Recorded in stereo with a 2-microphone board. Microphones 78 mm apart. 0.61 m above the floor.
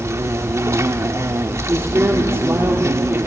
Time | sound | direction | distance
0.0 | an insect | 35° right (ahead or behind) | 0.9 m
1.7 | a man speaking | 30° right (ahead or behind) | 1.6 m